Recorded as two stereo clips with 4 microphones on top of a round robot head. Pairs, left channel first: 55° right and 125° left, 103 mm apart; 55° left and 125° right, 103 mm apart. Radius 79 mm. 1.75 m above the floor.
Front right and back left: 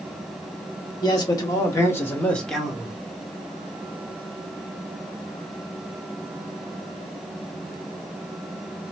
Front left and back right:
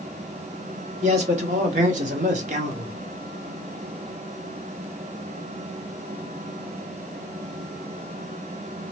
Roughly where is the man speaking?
Right.